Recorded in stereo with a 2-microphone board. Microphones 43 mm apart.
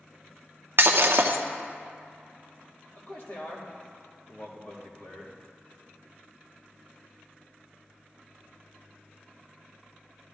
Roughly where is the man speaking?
Left.